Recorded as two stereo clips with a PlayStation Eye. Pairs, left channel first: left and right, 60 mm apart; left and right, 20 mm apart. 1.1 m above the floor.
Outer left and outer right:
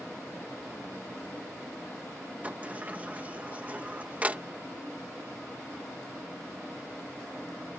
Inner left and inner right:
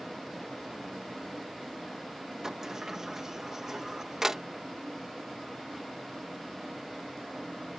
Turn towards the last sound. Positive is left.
turn(degrees=-25)  # may be behind; listen again after turning